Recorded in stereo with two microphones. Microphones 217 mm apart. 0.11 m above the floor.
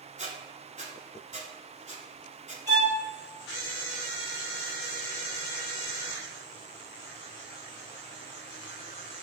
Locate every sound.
0.2 s a squeak: 35° right (ahead or behind), 0.8 m
2.7 s a violin: 15° right (ahead or behind), 1.8 m